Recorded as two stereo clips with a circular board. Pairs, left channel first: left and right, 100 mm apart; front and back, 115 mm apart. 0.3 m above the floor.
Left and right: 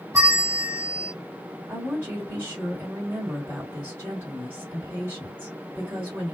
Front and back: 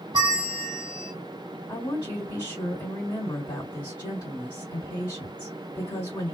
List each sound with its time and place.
0.1 s a bell: 140° right, 1.2 m
1.7 s a woman speaking: 35° right, 1.9 m